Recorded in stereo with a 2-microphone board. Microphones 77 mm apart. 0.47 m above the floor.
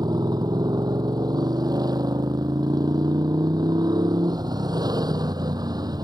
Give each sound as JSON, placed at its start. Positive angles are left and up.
{"t": 0.0, "sound": "a motorcycle", "side_deg": -60}